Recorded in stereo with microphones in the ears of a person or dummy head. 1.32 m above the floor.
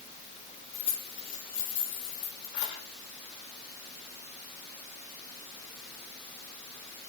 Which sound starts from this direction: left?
Keys jangling, at 0.7 s.